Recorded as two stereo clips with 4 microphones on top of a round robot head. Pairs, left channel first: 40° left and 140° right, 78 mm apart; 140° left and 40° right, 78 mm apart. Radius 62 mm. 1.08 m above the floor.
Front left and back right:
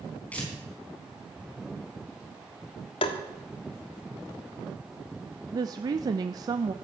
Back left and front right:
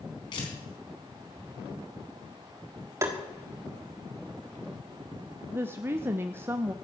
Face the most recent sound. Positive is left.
turn(degrees=-100)